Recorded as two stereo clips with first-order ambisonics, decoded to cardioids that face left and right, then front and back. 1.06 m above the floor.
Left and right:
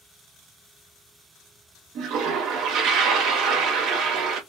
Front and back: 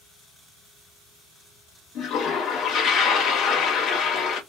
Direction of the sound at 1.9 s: 50° right.